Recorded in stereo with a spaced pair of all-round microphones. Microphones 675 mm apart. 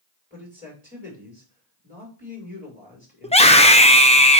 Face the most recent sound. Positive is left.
turn(degrees=10)  # may be behind; listen again after turning